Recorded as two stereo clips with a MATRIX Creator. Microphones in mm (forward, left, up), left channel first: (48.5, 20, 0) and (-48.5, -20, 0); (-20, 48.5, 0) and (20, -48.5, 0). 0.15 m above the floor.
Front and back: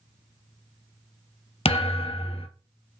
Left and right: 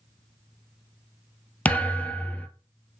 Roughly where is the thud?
Ahead left.